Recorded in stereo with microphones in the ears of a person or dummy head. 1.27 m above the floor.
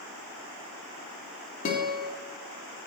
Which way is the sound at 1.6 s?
40° left (ahead or behind).